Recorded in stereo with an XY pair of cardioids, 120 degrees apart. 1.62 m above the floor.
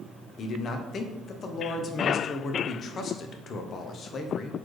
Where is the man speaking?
45° left, 0.5 m.